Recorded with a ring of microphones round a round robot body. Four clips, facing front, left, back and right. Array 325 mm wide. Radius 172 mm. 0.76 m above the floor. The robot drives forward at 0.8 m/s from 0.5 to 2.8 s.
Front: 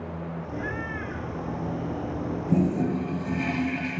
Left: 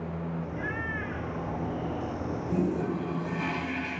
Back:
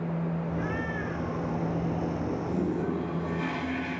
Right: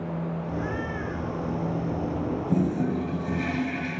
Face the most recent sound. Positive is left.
turn(degrees=-40)